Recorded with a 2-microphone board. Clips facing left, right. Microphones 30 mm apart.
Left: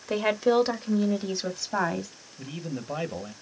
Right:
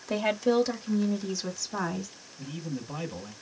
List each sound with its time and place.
0.1 s a woman speaking: 15° left (ahead or behind), 0.9 m; by 2.1 s 60° left (ahead or behind), 1.8 m
2.4 s a man speaking: 45° left (ahead or behind), 1.2 m